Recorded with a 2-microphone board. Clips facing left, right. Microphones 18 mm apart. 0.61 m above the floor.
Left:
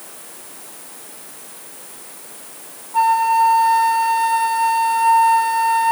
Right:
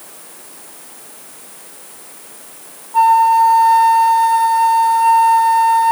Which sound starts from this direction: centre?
A flute, at 2.9 s.